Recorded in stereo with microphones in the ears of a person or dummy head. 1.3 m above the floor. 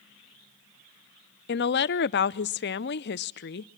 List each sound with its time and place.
1.5 s a woman speaking: 50° left (ahead or behind), 0.5 m